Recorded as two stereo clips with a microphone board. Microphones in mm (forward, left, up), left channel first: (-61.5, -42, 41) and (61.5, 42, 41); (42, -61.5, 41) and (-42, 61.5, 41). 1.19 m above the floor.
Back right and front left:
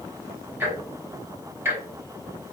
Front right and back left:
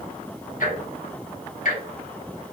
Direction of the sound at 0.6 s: 40° right.